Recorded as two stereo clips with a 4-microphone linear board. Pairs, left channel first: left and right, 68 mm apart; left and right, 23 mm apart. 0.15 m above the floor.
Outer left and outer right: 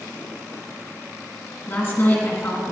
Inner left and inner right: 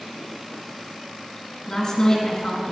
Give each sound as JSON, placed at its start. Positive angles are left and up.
{"t": 1.7, "sound": "a woman speaking", "side_deg": 30, "distance_m": 2.0}